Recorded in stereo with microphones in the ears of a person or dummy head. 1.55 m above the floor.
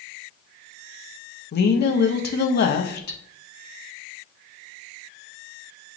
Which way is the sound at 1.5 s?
50° left (ahead or behind).